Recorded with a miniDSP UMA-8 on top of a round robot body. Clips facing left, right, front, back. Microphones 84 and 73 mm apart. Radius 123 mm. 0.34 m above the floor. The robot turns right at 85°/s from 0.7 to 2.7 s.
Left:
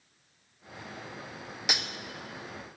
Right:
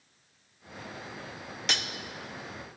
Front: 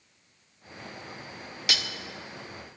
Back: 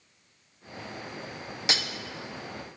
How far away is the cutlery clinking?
About 0.6 m.